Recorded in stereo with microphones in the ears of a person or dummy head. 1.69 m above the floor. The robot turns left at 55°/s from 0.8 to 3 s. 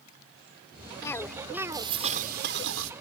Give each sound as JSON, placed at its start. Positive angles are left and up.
{"t": 1.0, "sound": "a cough", "azimuth_deg": 20}